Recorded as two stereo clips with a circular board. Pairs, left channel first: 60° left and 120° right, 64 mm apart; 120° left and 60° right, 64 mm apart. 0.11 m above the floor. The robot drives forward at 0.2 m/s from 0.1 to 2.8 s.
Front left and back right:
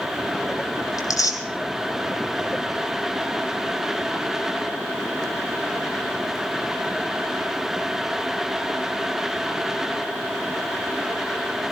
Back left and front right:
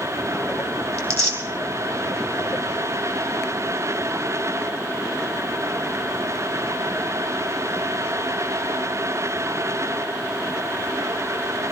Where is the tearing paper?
65° left, 3 m.